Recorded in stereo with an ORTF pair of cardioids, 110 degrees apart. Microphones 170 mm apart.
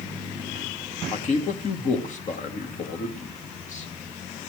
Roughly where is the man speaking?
Ahead left.